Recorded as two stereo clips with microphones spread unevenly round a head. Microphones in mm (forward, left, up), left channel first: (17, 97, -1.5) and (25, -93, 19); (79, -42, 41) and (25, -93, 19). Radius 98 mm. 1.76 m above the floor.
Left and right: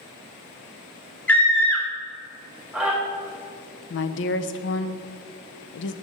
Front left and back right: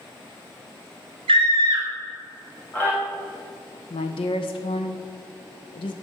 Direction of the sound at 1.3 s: Straight behind.